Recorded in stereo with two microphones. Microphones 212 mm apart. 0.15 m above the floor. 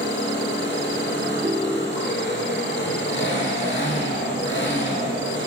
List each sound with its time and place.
0.0 s an engine running: 55° left (ahead or behind), 6 m
1.4 s a ringtone: 20° right (ahead or behind), 2 m